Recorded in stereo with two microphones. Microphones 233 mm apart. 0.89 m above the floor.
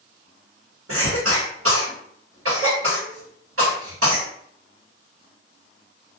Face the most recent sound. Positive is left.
turn(degrees=-75)  # may be behind; listen again after turning